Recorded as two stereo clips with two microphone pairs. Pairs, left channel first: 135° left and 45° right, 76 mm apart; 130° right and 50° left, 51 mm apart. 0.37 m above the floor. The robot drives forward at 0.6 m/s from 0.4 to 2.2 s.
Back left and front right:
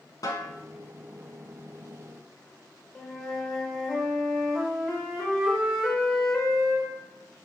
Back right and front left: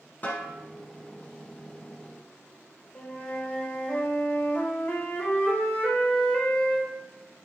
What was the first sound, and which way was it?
A snare drum, 170° left.